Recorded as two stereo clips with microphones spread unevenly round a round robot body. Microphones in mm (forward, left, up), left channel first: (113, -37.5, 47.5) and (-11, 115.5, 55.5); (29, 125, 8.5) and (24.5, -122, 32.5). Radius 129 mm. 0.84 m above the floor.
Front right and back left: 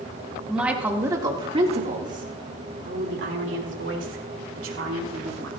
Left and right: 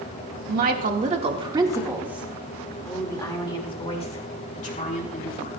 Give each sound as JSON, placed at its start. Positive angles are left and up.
{"t": 0.5, "sound": "a woman speaking", "azimuth_deg": -145, "distance_m": 2.0}